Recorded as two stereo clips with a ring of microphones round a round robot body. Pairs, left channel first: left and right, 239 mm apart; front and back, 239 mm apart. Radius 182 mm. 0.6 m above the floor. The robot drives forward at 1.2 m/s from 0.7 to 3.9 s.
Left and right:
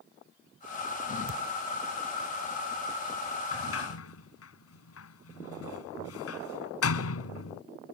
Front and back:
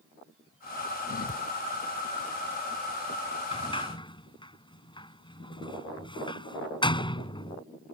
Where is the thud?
65° right.